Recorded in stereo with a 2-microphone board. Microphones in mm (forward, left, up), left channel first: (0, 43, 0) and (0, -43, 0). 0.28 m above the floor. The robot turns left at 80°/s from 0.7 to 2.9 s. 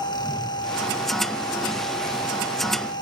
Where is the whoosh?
15° left (ahead or behind), 6 m.